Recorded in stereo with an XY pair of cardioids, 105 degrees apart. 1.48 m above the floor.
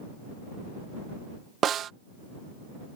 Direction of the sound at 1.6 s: 60° right.